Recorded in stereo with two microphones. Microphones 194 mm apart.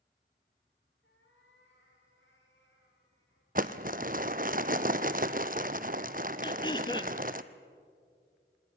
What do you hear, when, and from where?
1.0 s a cat meowing: 85° left, 5.5 m; by 3.5 s 80° left, 7.5 m
3.5 s crumpling: 45° right (ahead or behind), 0.7 m
6.4 s throat clearing: 25° left (ahead or behind), 1.0 m